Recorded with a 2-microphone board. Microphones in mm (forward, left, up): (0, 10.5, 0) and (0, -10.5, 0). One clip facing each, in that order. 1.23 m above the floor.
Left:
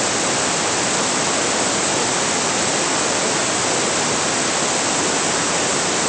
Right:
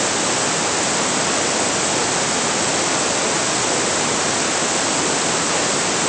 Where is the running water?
No running water in this recording.